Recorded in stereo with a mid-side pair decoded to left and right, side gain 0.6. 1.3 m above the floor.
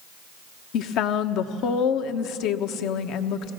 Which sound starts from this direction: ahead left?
A woman speaking, at 0.7 s.